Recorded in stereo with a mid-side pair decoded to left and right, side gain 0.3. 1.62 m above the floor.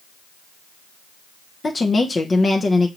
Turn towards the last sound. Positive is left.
turn(degrees=45)